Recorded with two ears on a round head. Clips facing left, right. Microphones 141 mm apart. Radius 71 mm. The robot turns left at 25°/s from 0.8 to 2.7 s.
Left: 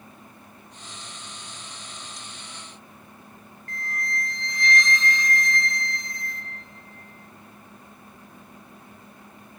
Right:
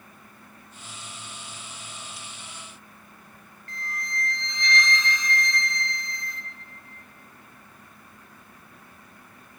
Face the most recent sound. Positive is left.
turn(degrees=-65)  # may be behind; listen again after turning